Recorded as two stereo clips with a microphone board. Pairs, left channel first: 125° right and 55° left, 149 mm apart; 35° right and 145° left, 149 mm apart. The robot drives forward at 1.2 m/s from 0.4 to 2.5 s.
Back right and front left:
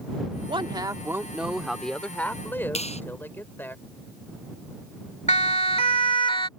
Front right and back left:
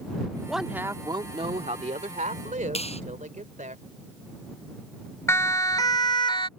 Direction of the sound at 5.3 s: 105° right.